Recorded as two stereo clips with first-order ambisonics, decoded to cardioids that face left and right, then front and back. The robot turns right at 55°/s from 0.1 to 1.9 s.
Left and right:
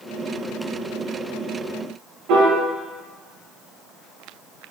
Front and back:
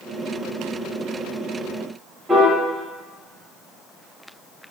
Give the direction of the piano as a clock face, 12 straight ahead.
3 o'clock.